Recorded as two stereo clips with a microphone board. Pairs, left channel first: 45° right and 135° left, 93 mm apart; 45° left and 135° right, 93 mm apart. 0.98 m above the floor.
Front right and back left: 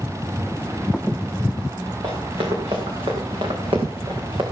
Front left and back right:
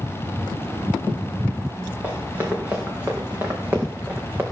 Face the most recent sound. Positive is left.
turn(degrees=160)